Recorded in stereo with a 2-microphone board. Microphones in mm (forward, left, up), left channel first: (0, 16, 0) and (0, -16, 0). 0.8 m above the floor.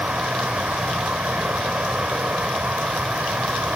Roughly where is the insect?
Right.